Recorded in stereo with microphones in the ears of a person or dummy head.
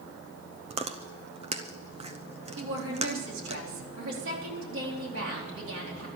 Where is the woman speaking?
80° right, 4 m.